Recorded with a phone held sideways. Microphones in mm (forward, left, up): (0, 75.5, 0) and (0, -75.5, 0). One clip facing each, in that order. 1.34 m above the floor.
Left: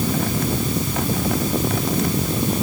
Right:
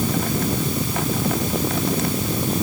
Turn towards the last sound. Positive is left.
No sound to turn to.